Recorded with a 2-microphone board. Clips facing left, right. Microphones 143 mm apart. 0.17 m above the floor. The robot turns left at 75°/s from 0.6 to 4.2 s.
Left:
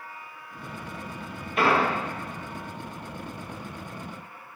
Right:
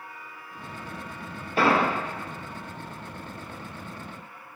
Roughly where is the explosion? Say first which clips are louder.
Right 1 dB; right.